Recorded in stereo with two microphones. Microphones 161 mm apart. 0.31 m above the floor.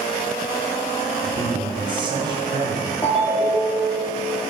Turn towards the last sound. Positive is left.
turn(degrees=30)  # may be behind; listen again after turning